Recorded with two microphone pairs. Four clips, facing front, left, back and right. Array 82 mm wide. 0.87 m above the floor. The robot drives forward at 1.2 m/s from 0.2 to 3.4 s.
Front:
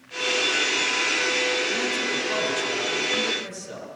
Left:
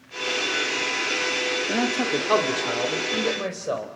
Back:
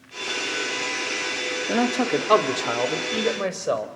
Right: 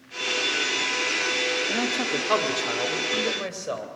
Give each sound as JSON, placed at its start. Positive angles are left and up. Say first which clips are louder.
{"t": 1.7, "sound": "a man speaking", "louder": "left 3 dB, back 5 dB", "azimuth_deg": 170, "distance_m": 1.4}